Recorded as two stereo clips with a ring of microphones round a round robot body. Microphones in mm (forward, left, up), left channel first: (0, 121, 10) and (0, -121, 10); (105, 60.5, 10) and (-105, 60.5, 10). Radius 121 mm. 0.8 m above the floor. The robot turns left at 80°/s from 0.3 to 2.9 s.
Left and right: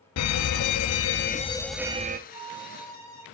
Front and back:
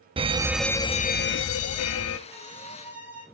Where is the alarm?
115° left, 0.7 m; by 2.2 s 35° right, 0.7 m.